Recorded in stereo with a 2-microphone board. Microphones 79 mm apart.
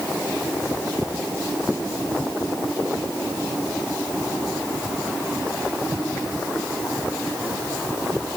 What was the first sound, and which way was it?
Only background noise.